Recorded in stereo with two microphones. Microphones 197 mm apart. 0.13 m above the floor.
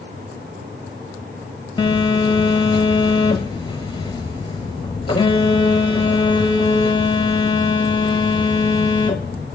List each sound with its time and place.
1.8 s a phone buzzing: 25° left (ahead or behind), 0.8 m